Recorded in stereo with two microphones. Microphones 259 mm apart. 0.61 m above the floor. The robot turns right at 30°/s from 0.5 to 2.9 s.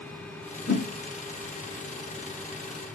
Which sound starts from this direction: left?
A whoosh, at 0.7 s.